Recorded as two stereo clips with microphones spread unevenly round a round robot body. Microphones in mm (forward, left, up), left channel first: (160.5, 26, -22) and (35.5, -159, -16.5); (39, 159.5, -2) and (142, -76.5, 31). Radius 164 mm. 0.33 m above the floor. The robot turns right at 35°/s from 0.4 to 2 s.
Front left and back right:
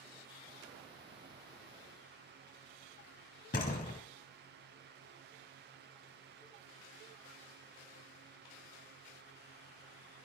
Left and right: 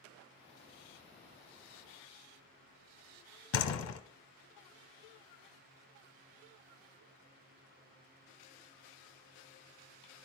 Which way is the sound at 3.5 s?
120° left.